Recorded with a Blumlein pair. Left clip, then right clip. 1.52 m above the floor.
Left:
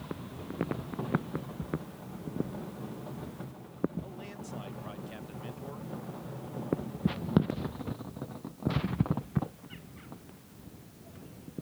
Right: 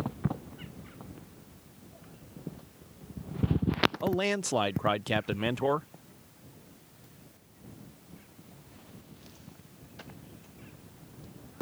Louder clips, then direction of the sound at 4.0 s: Right 16 dB; 50° right.